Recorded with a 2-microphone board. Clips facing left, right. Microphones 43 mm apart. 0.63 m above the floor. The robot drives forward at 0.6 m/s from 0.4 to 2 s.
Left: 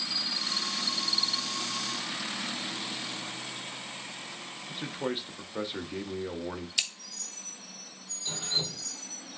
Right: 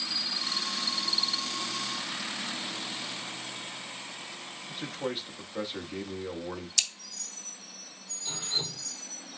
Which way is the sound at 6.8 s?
15° left (ahead or behind).